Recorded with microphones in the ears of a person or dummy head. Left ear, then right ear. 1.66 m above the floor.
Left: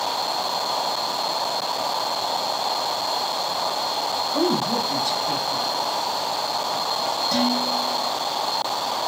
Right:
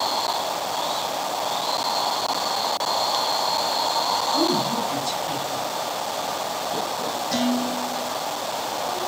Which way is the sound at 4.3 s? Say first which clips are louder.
Even; 25° left (ahead or behind).